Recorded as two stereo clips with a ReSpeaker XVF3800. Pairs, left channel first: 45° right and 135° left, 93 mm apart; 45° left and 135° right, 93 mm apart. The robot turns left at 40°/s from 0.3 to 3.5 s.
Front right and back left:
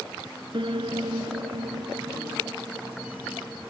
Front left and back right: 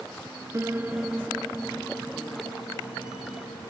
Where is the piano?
165° left; by 3.7 s 45° left.